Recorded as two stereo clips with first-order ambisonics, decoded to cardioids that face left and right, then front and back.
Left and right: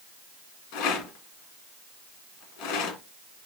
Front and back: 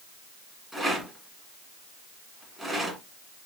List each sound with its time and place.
0.7 s a rattle: 90° left, 1.5 m